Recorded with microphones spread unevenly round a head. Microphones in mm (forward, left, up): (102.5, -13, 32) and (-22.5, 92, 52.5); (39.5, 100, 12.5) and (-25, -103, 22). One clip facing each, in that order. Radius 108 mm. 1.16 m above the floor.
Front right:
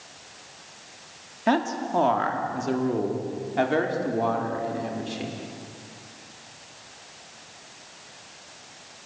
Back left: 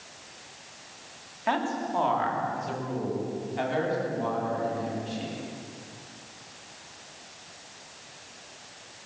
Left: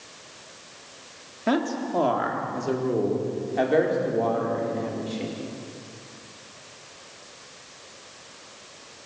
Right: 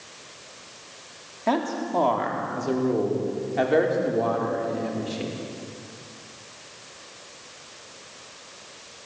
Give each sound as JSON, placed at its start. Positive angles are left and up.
{"t": 1.5, "sound": "a man speaking", "azimuth_deg": 0, "distance_m": 3.5}